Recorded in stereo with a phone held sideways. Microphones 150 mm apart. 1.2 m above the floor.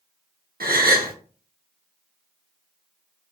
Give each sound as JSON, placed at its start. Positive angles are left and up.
{"t": 0.6, "sound": "a gasp", "side_deg": -70, "distance_m": 0.6}